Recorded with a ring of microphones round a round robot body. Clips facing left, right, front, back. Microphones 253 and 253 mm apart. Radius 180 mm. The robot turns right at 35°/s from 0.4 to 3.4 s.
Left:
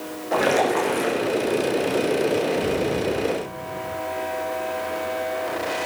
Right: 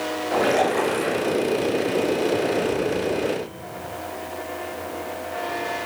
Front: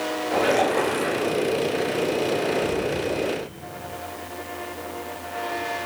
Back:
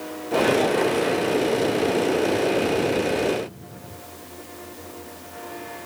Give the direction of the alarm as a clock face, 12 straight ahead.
I don't hear an alarm.